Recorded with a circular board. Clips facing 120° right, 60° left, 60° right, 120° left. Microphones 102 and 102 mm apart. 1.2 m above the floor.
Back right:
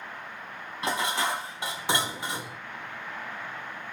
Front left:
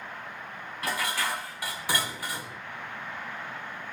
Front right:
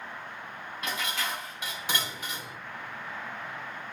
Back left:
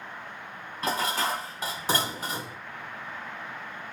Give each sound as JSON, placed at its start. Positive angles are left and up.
{"t": 0.8, "sound": "dishes clattering", "azimuth_deg": 175, "distance_m": 1.1}